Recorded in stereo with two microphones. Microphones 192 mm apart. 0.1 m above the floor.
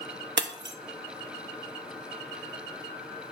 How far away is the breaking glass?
About 0.6 m.